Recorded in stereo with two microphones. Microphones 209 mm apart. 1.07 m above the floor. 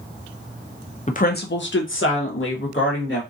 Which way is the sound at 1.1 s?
35° left (ahead or behind).